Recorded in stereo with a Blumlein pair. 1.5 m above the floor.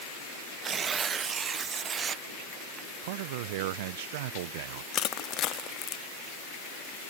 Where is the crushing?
30° left.